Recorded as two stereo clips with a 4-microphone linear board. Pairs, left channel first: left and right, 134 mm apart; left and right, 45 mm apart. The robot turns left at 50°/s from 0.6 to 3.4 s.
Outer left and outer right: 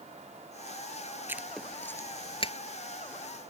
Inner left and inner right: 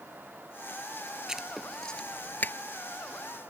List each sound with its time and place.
1.3 s writing: 15° right (ahead or behind); by 2.5 s 45° left (ahead or behind)